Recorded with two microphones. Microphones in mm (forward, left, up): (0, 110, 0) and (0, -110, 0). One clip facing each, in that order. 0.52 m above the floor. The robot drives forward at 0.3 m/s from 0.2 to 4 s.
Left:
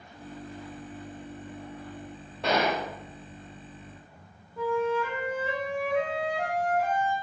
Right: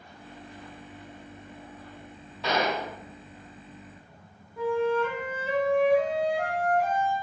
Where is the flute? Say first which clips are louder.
Right 2 dB; centre (ahead or behind), 1.1 m.